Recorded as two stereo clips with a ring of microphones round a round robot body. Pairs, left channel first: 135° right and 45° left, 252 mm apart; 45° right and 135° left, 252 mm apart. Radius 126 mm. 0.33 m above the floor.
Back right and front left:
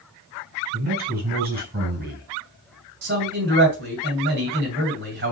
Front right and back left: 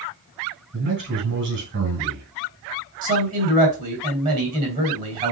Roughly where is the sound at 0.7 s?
Left.